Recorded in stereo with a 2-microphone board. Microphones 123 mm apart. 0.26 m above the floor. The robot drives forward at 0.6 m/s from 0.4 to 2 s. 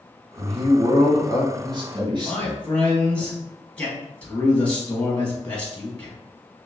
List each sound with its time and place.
0.4 s a man speaking: 50° right (ahead or behind), 1.6 m; by 3.2 s 35° right (ahead or behind), 2 m
2.2 s a man speaking: 10° left (ahead or behind), 1.7 m